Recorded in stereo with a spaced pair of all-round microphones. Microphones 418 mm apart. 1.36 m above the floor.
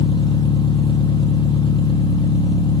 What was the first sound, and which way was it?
An engine running, 10° left (ahead or behind).